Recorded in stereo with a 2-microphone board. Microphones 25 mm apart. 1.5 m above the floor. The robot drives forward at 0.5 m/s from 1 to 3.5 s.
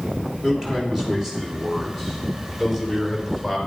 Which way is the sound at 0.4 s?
20° right (ahead or behind).